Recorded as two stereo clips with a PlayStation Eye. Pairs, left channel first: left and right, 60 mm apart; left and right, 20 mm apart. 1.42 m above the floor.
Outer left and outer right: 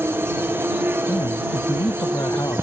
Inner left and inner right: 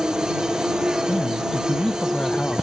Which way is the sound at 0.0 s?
35° right (ahead or behind).